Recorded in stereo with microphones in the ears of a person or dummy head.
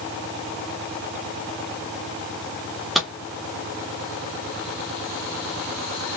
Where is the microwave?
5° right (ahead or behind), 0.8 m.